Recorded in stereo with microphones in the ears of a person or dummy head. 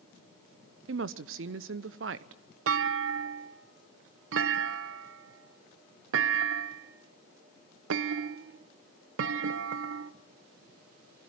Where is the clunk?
80° right, 0.9 m.